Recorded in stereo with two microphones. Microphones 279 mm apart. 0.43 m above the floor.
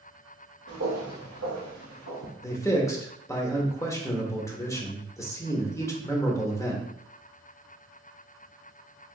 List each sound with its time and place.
0.7 s footsteps: 55° right (ahead or behind), 2 m; by 2.3 s 80° right, 2.5 m
2.4 s a man speaking: 10° left (ahead or behind), 0.9 m